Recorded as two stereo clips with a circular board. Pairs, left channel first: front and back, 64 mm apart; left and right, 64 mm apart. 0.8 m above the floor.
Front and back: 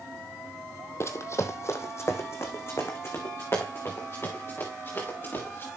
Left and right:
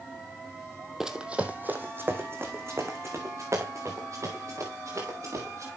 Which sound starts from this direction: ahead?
Running footsteps, at 1.0 s.